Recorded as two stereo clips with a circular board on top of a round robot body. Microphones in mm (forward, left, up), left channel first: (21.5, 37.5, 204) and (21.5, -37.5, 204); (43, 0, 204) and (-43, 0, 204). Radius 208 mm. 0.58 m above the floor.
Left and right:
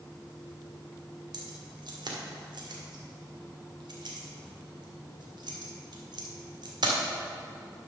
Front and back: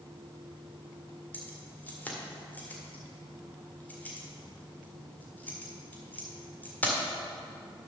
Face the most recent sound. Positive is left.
turn(degrees=-70)